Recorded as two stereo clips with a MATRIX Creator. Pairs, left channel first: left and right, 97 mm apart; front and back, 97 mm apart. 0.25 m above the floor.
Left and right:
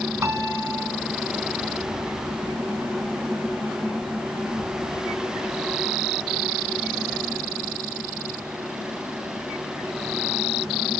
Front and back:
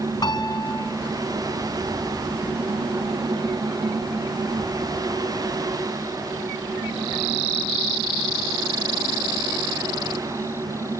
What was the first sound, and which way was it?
A piano, 40° right.